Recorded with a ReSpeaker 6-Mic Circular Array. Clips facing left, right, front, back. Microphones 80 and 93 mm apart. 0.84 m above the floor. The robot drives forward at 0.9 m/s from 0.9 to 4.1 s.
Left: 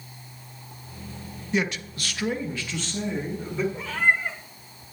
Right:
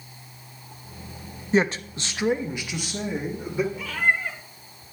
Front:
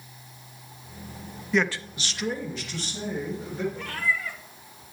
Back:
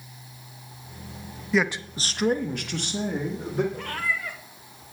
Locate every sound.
1.5 s a man speaking: 90° right, 0.5 m; by 3.6 s 170° right, 2.0 m
3.7 s a cat meowing: 140° left, 1.4 m; by 4.4 s 150° left, 1.7 m